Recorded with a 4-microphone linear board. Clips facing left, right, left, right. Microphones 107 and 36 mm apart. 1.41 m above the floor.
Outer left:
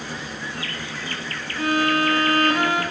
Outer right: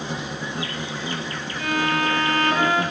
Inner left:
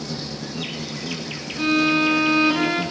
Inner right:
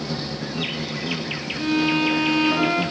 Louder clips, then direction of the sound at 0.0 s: Outer right 3 dB, inner right 2 dB; 20° right (ahead or behind).